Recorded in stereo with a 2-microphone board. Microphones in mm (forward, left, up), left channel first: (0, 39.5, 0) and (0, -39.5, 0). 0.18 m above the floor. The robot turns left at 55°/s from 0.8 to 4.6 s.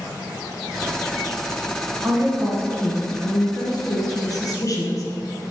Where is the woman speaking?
165° right, 2 m; by 5.0 s 55° left, 2 m.